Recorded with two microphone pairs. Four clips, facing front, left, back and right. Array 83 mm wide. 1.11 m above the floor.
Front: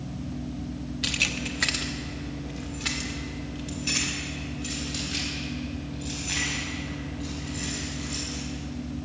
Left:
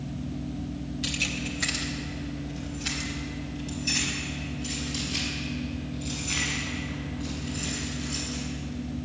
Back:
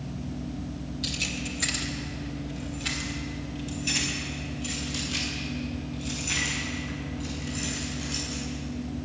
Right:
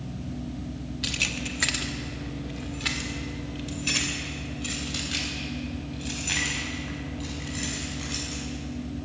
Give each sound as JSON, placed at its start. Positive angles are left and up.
{"t": 1.0, "sound": "keys jangling", "azimuth_deg": -15, "distance_m": 0.9}